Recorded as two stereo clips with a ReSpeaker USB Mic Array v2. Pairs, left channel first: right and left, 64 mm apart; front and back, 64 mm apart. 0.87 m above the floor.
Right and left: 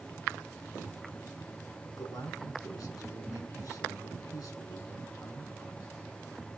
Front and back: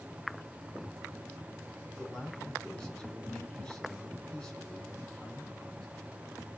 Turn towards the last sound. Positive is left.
turn(degrees=-85)